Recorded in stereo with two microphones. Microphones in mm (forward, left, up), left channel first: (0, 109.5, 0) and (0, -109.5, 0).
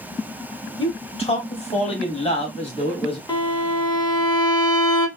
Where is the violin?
20° left (ahead or behind), 0.7 m.